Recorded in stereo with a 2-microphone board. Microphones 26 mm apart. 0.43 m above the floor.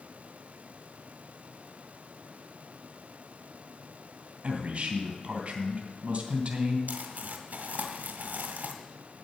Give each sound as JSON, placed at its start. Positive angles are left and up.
{"t": 4.4, "sound": "a man speaking", "side_deg": -45, "distance_m": 3.0}
{"t": 6.9, "sound": "crumpling", "side_deg": -75, "distance_m": 1.7}